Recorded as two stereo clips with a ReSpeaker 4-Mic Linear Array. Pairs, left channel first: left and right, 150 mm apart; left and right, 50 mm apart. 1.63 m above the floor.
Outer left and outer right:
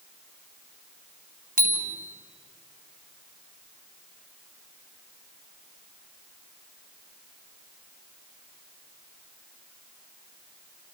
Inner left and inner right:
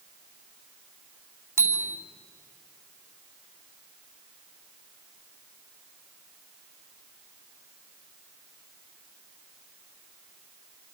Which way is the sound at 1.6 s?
70° right (ahead or behind).